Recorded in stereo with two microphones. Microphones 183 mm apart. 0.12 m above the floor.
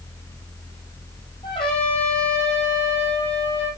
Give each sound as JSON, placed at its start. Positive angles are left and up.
{"t": 1.4, "sound": "a trumpet", "side_deg": 30, "distance_m": 5.0}